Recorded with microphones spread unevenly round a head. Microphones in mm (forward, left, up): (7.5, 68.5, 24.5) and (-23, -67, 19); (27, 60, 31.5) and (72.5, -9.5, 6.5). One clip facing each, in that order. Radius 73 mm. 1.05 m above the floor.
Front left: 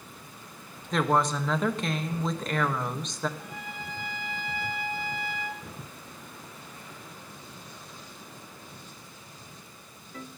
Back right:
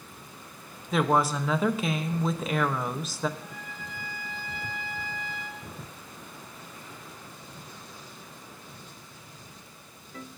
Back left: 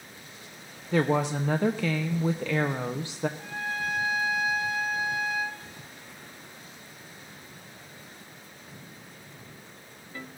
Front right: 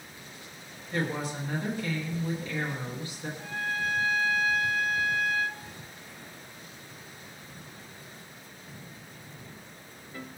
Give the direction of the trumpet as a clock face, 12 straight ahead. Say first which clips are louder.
Front left 2 dB, front right 1 dB; 11 o'clock.